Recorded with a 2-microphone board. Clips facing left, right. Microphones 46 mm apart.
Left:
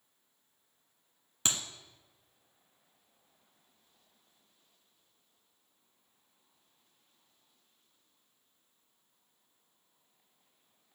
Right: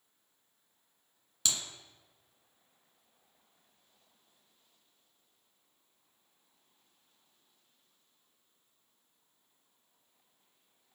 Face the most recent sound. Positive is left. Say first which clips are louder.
# left 1 dB
turn(degrees=35)  # may be behind; listen again after turning